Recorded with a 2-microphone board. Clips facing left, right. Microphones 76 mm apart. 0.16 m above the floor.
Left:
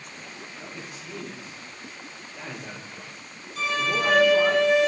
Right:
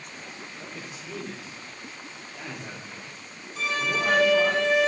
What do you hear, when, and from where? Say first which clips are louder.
0.6 s a man speaking: left 1 dB; 20° right (ahead or behind), 3.5 m; by 4.6 s 5° right (ahead or behind), 5 m
3.6 s a violin: left 2 dB; 20° right (ahead or behind), 3.5 m